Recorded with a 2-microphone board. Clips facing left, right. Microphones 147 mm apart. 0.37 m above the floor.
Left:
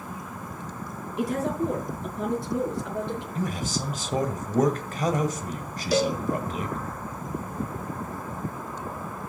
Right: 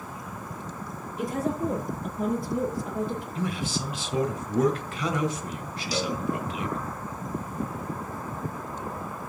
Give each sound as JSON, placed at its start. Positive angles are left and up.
{"t": 1.2, "sound": "a woman speaking", "side_deg": 80, "distance_m": 4.0}
{"t": 3.4, "sound": "a man speaking", "side_deg": 45, "distance_m": 1.9}
{"t": 5.9, "sound": "a cowbell", "side_deg": 55, "distance_m": 0.7}